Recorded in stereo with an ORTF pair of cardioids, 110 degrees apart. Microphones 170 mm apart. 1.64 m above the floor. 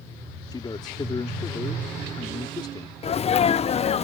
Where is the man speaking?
25° left.